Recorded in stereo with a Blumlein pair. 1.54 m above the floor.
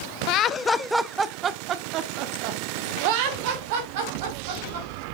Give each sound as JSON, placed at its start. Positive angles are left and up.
{"t": 0.3, "sound": "laughter", "azimuth_deg": 40, "distance_m": 0.6}